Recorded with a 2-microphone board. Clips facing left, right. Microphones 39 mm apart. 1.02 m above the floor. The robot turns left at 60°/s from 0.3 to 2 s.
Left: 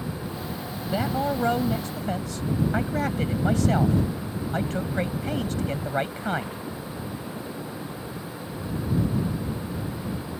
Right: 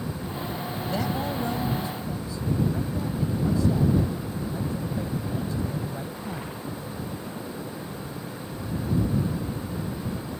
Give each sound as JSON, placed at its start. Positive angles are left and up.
{"t": 0.9, "sound": "a man speaking", "azimuth_deg": 165}